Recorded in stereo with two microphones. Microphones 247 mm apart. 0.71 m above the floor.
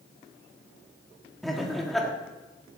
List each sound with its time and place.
1.4 s laughter: centre (ahead or behind), 1.8 m